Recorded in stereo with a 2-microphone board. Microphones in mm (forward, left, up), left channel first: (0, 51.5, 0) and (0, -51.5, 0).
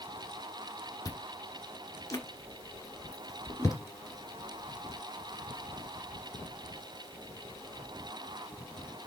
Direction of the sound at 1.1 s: 35° left (ahead or behind).